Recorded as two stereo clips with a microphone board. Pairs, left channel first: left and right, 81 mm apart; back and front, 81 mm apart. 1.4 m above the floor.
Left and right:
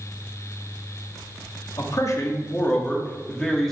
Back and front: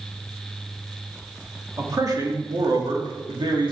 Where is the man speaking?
50° left, 2.5 m; by 3.7 s straight ahead, 2.5 m.